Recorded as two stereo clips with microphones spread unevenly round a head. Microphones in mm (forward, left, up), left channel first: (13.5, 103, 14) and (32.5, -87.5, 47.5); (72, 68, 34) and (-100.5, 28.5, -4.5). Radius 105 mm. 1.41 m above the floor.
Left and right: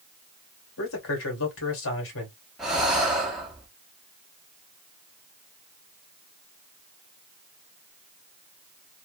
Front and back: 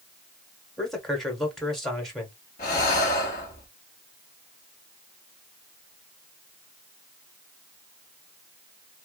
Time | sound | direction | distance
0.8 | a man speaking | 105° left | 1.7 m
2.6 | breathing | 5° right | 1.1 m